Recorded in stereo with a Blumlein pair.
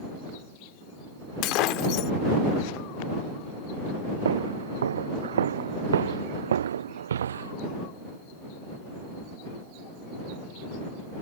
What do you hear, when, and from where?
1.4 s breaking glass: 40° left
4.2 s footsteps: 65° right